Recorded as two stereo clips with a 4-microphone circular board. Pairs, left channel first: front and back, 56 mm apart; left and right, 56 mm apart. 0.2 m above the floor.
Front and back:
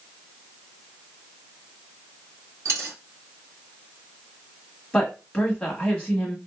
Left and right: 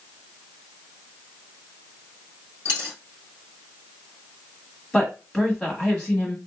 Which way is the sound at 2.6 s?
140° right.